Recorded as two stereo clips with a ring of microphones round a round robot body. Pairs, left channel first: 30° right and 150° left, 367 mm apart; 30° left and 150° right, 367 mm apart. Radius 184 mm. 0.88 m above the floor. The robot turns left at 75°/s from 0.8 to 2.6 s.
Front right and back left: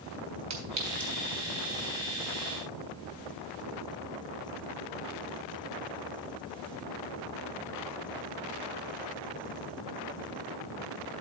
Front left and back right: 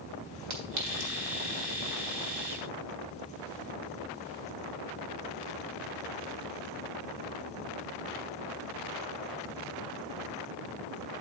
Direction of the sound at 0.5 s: 160° right.